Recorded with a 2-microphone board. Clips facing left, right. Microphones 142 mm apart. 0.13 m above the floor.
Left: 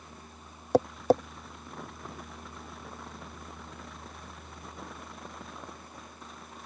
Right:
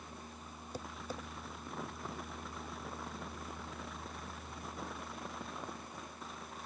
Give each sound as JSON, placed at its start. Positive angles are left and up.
{"t": 0.7, "sound": "tapping", "side_deg": 75}